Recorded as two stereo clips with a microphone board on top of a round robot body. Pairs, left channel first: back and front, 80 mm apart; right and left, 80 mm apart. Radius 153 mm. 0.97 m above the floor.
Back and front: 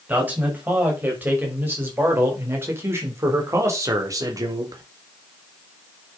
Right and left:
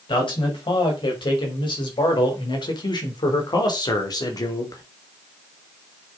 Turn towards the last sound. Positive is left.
turn(degrees=-40)